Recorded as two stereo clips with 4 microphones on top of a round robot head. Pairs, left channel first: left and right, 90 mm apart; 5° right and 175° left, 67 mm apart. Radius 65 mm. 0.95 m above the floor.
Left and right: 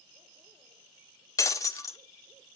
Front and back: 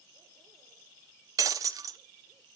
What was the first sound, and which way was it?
Breaking glass, 140° left.